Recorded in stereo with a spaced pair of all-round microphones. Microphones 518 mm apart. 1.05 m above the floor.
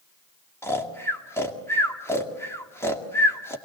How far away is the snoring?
About 2 m.